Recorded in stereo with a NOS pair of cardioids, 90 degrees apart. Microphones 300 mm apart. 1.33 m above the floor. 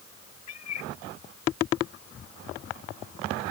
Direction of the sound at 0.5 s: 65° left.